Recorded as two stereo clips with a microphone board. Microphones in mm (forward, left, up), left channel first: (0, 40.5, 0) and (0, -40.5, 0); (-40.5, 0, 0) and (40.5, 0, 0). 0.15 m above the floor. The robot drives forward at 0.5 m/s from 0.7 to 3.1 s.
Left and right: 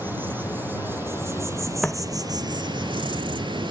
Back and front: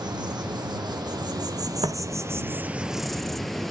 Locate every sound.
0.0 s an insect: 25° right, 1.3 m; by 3.7 s 90° right, 0.6 m
1.8 s footsteps: straight ahead, 1.1 m; by 3.7 s 85° left, 2 m